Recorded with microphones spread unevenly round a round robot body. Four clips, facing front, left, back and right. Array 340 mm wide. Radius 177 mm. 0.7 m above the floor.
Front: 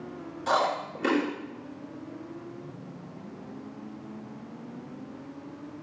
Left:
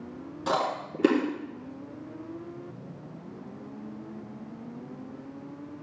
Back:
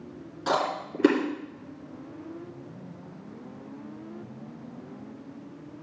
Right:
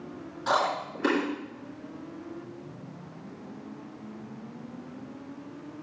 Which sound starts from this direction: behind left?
Chewing, at 0.5 s.